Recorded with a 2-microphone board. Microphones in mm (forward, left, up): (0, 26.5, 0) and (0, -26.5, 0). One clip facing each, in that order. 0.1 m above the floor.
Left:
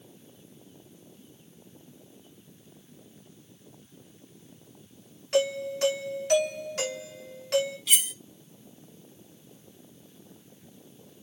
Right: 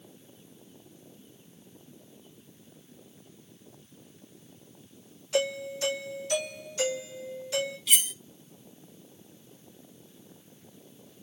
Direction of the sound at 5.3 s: 65° left (ahead or behind).